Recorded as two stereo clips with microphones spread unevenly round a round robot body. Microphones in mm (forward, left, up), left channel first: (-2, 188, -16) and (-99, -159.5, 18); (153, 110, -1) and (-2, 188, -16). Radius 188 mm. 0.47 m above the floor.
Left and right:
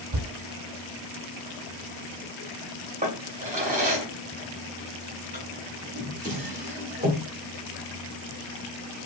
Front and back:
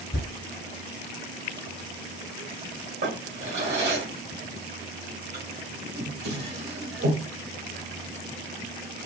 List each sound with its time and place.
0.1 s a thud: 65° right, 0.6 m
3.0 s a drawer: straight behind, 1.0 m